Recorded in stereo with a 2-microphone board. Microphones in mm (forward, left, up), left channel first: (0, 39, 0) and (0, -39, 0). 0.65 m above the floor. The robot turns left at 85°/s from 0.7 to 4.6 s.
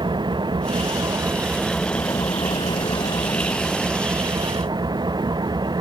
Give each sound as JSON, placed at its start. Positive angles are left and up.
{"t": 0.0, "sound": "an engine running", "azimuth_deg": -95}